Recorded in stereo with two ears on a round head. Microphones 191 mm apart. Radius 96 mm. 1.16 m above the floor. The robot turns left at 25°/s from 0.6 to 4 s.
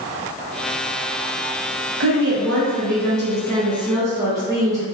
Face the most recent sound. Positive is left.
turn(degrees=-165)